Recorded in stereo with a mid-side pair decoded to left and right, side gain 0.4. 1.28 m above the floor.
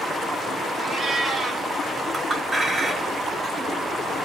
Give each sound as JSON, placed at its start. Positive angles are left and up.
{"t": 0.8, "sound": "a cat meowing", "azimuth_deg": -35, "distance_m": 1.6}
{"t": 2.1, "sound": "a clink", "azimuth_deg": -30, "distance_m": 1.3}